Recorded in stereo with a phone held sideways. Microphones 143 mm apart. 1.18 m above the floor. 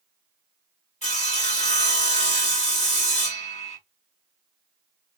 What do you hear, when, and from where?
1.0 s sawing: 55° left (ahead or behind), 1.1 m